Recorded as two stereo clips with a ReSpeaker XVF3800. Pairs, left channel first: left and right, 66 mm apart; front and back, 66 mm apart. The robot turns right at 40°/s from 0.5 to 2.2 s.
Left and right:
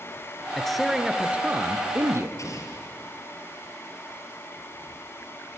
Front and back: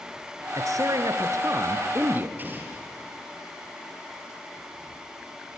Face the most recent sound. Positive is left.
turn(degrees=120)